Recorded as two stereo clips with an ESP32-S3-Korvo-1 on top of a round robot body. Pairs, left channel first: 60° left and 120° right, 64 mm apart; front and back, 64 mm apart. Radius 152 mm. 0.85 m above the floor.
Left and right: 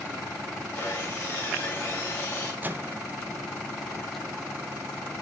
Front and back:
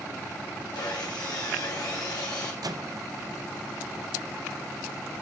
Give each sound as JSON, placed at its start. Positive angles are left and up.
{"t": 0.8, "sound": "sawing", "azimuth_deg": 0, "distance_m": 1.8}
{"t": 2.6, "sound": "a microwave", "azimuth_deg": 180, "distance_m": 0.6}